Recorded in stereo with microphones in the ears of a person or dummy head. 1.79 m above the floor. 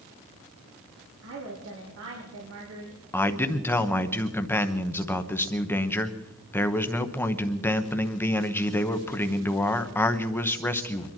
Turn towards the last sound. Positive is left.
turn(degrees=10)  # may be behind; listen again after turning